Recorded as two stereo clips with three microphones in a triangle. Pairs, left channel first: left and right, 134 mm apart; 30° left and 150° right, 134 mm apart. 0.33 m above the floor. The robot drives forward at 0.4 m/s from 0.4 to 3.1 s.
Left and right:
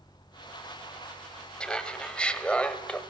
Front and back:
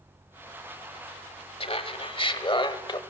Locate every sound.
1.6 s laughter: 10° left, 1.7 m; by 3.0 s 15° left, 1.3 m